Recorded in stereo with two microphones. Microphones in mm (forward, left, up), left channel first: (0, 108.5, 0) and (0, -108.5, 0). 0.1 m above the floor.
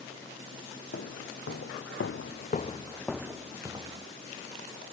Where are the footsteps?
70° left (ahead or behind), 1.2 m; by 4.1 s 20° right (ahead or behind), 1.2 m.